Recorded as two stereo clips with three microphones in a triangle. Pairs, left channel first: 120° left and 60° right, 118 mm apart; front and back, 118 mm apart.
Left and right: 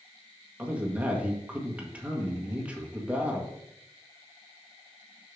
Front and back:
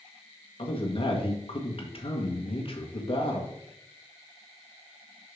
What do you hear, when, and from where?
0.6 s a man speaking: 15° left, 1.5 m